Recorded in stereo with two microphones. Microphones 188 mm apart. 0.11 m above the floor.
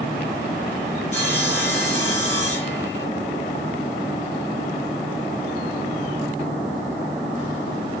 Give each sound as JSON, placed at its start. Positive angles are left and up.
{"t": 1.1, "sound": "sawing", "side_deg": 35, "distance_m": 8.0}